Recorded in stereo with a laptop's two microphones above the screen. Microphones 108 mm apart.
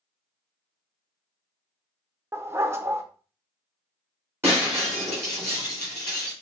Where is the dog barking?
25° right (ahead or behind), 0.6 m.